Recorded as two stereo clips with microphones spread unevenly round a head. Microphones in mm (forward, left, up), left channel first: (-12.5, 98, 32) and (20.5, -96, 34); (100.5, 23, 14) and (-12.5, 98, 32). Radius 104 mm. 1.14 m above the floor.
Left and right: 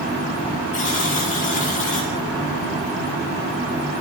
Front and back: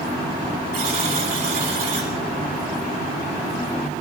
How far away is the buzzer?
About 8.5 m.